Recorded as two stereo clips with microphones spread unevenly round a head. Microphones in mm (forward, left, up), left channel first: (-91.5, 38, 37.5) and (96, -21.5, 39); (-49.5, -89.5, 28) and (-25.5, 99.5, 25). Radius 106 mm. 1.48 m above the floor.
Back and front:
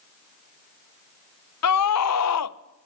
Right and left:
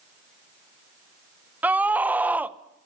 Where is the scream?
165° left, 0.9 m.